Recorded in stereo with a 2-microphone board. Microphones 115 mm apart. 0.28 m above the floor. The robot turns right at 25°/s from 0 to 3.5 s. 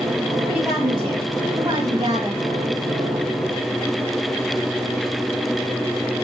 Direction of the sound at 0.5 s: 175° right.